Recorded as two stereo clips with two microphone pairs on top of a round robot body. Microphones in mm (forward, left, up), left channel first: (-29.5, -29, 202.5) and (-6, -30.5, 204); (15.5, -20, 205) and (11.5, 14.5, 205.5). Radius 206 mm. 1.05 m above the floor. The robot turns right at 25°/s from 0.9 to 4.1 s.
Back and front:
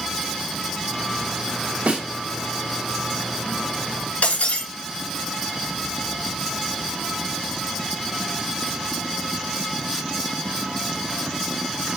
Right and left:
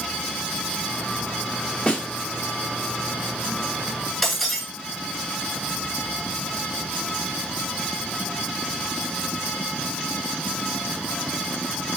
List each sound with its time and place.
1.9 s a snare drum: 20° right, 1.9 m; by 2.0 s 15° right, 1.9 m
4.2 s breaking glass: 165° right, 2.5 m